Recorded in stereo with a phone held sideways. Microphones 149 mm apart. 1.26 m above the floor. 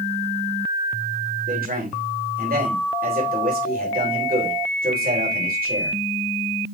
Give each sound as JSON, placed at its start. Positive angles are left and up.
{"t": 1.5, "sound": "a man speaking", "side_deg": -85, "distance_m": 4.0}